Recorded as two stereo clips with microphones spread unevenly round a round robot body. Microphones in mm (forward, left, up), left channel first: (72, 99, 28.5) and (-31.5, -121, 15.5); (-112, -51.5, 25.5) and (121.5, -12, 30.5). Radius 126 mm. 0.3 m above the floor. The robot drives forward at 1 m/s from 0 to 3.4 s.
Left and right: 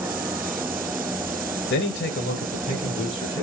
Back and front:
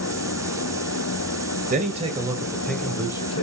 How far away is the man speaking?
About 1.8 m.